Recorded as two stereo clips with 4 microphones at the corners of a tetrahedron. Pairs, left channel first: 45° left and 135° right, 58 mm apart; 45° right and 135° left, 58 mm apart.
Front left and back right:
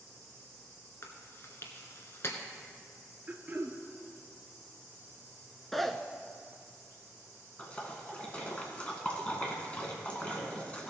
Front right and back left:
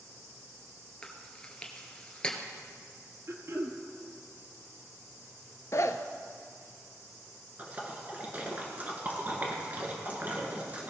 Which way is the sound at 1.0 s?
25° left.